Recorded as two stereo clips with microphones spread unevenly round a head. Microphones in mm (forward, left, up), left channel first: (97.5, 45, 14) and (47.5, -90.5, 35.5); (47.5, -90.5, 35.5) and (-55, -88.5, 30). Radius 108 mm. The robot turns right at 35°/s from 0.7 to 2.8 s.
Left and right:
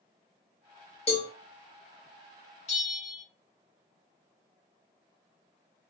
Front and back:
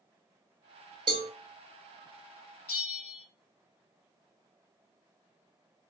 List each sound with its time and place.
1.1 s a cowbell: 130° left, 0.5 m; by 1.3 s 135° left, 0.5 m
2.7 s a bell: 50° left, 0.9 m